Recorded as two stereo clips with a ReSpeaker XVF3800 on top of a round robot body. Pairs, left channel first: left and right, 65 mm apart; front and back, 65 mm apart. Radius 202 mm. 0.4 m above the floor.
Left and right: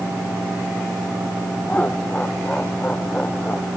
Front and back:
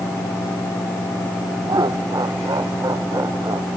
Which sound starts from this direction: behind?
Laughter, at 1.7 s.